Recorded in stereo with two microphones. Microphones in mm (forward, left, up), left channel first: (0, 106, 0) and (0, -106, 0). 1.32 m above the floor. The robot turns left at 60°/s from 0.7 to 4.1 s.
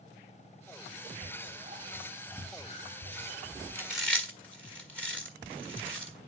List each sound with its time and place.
1.2 s whispering: 125° right, 2 m; by 3.6 s 90° left, 2 m
3.8 s chewing: 10° right (ahead or behind), 1.5 m; by 6.1 s 5° left (ahead or behind), 1.5 m